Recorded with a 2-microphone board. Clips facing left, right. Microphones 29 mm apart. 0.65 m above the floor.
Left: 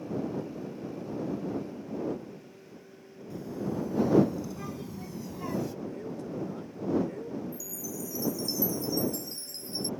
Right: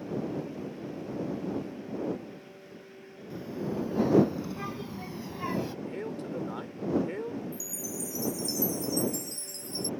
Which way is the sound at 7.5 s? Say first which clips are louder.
Right 1 dB; 20° left (ahead or behind).